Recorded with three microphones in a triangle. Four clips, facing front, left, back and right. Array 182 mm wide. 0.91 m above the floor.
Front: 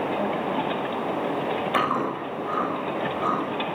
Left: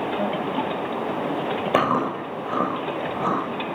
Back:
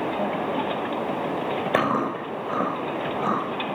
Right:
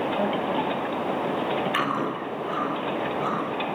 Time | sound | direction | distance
1.7 | chewing | 120° left | 9 m